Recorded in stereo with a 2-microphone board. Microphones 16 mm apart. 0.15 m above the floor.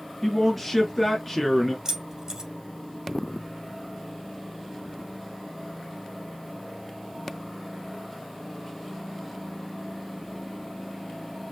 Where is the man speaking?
5° left (ahead or behind), 1.9 m.